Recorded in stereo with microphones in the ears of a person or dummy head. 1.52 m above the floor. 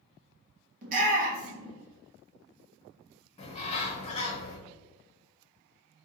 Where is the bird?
40° left (ahead or behind), 0.9 m.